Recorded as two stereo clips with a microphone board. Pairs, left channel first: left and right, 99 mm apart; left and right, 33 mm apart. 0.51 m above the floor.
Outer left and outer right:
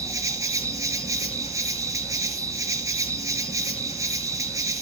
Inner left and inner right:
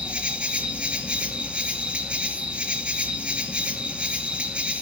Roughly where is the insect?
Right.